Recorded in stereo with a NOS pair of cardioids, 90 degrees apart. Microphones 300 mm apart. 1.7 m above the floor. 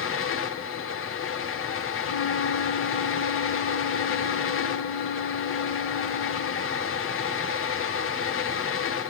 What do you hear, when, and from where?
0.0 s a fan: 45° left, 1.9 m
2.0 s a flute: 45° left, 2.5 m